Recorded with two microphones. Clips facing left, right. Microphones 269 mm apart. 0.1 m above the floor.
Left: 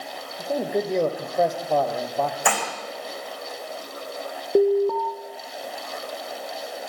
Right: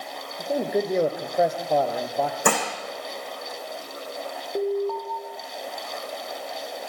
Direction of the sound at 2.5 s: 50° right (ahead or behind).